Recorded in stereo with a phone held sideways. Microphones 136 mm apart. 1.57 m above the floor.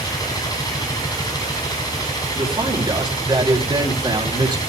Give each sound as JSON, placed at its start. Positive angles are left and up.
{"t": 0.0, "sound": "a machine running", "side_deg": 30, "distance_m": 6.5}
{"t": 2.4, "sound": "a man speaking", "side_deg": -35, "distance_m": 4.5}